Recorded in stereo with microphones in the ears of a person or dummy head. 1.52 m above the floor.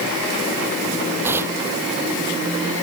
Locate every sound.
1.2 s tearing paper: 15° right (ahead or behind)